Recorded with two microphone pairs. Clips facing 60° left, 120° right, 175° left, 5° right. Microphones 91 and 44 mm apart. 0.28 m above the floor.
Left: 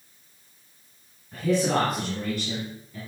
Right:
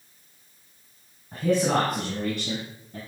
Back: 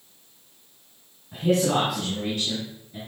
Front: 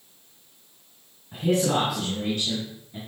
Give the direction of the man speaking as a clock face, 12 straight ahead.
3 o'clock.